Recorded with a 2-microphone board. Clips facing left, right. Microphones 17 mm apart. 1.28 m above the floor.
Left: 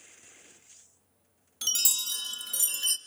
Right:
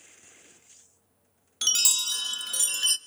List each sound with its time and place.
1.6 s a chime: 30° right (ahead or behind), 0.6 m